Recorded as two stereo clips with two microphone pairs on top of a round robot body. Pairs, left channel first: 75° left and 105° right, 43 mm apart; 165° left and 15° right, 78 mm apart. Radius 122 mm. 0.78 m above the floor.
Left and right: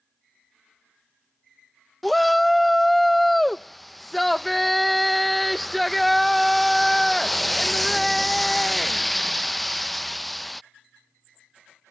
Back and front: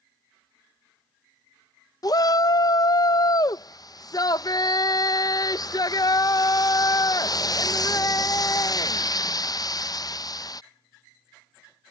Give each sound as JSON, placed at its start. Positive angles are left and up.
{"t": 2.0, "sound": "a shout", "azimuth_deg": 150}